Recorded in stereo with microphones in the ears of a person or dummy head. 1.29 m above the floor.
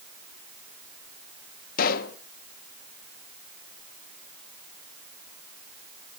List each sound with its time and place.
1.8 s a pop: 50° left (ahead or behind), 1.0 m